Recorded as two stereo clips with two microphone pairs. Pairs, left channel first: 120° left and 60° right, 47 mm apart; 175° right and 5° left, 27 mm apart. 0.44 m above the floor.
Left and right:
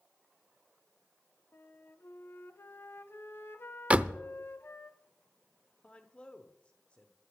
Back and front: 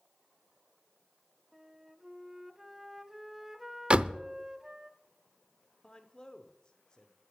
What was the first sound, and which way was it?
A flute, 80° left.